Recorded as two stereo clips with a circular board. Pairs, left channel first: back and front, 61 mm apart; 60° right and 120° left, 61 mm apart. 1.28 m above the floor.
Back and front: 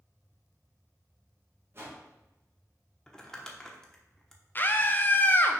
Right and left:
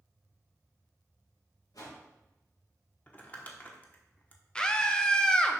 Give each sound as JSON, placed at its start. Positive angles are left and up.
{"t": 1.7, "sound": "a whoosh", "azimuth_deg": -50, "distance_m": 1.7}
{"t": 3.1, "sound": "crumpling", "azimuth_deg": -105, "distance_m": 1.0}
{"t": 4.5, "sound": "a scream", "azimuth_deg": -130, "distance_m": 0.8}